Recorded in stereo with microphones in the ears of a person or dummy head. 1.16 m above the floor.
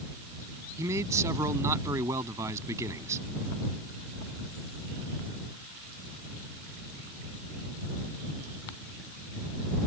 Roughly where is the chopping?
No chopping in this recording.